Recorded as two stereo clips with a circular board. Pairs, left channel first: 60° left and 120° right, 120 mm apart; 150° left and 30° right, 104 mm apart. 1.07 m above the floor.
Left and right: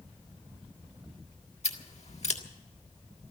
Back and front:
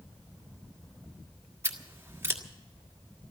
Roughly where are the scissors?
Ahead left.